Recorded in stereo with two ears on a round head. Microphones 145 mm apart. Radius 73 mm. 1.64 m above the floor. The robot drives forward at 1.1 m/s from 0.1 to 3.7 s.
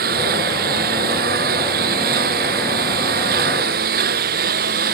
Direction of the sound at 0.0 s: 60° right (ahead or behind).